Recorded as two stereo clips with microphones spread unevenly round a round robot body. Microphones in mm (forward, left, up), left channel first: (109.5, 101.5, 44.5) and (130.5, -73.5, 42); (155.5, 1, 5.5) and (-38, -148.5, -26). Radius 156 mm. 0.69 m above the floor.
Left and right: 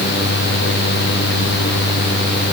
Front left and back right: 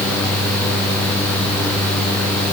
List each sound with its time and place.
Only background noise.